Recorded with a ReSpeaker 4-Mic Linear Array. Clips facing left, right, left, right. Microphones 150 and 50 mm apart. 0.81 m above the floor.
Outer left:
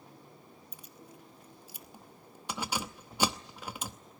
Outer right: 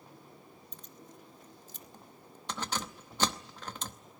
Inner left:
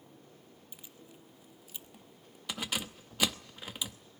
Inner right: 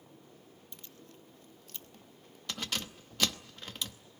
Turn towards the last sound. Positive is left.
turn(degrees=10)  # may be behind; listen again after turning